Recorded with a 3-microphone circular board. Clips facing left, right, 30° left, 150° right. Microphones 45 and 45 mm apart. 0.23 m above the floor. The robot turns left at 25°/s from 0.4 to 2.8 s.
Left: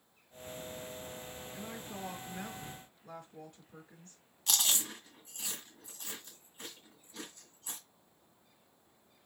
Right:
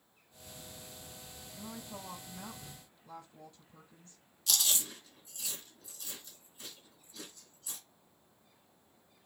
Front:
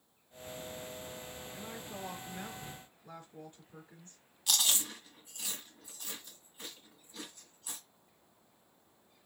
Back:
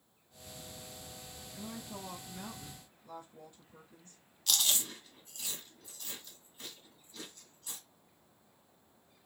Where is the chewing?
95° left, 2.0 m.